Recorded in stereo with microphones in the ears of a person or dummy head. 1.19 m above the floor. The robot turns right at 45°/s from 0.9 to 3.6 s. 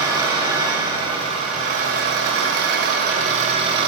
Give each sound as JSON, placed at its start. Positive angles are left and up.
{"t": 0.0, "sound": "an engine running", "azimuth_deg": -160, "distance_m": 1.9}